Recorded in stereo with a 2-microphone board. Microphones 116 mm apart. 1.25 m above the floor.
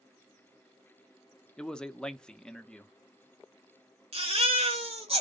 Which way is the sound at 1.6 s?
10° left (ahead or behind).